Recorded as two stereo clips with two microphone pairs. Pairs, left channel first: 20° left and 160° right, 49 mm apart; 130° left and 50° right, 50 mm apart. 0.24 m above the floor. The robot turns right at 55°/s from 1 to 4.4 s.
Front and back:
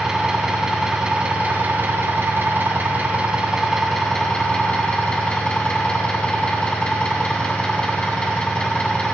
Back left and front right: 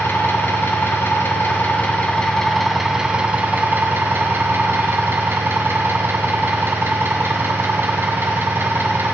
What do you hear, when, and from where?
0.0 s an engine running: 130° left, 1.3 m; by 9.2 s 40° right, 1.3 m